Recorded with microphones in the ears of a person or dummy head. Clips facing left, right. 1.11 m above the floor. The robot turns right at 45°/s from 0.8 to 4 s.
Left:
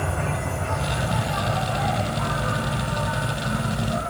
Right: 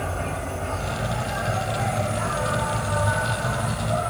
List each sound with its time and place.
0.0 s an insect: 165° left, 1.6 m; by 4.1 s 50° right, 1.6 m